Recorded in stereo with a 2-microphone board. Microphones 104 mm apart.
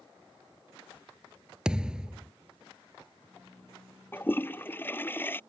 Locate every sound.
1.6 s a thud: 10° right (ahead or behind)
4.1 s a toilet flushing: 20° left (ahead or behind)